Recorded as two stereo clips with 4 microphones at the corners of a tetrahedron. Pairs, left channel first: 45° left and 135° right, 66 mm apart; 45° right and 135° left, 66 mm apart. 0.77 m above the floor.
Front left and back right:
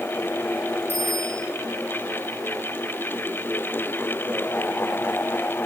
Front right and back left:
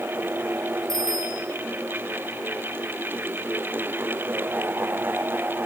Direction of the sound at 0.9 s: 105° left.